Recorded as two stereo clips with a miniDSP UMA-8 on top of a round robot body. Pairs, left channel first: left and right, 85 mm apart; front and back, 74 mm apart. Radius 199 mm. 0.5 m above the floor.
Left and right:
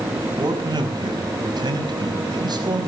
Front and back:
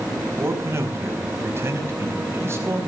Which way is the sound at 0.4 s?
125° right.